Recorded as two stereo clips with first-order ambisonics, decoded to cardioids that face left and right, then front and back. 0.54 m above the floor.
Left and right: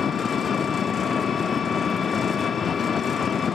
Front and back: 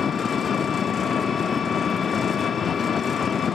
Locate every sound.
0.0 s an engine running: 45° left, 0.7 m